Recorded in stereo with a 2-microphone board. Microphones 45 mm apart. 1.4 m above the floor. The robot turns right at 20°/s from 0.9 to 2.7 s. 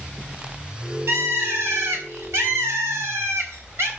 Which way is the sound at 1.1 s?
110° right.